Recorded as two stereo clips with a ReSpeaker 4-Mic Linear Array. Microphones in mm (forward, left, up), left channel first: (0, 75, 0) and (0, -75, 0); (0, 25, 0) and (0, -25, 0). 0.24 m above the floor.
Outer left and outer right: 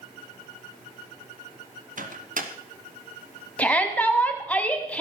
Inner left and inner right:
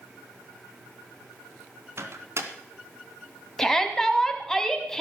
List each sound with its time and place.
2.0 s a microwave: 65° right (ahead or behind), 1.8 m
3.6 s a shout: 10° left (ahead or behind), 2 m